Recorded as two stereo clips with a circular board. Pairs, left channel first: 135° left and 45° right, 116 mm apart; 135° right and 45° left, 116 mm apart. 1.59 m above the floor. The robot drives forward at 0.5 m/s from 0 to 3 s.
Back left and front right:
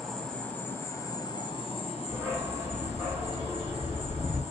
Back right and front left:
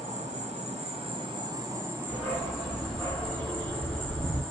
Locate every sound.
0.0 s an insect: 45° left, 1.0 m; by 4.5 s 140° left, 1.1 m
2.1 s a dog barking: 70° right, 1.4 m; by 4.4 s 115° right, 1.4 m